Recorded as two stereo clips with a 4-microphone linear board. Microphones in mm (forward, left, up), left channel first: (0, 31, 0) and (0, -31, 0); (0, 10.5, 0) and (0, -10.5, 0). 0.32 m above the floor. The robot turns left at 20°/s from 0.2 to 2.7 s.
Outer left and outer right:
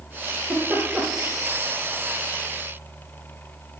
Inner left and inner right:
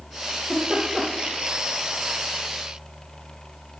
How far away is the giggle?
About 6.5 m.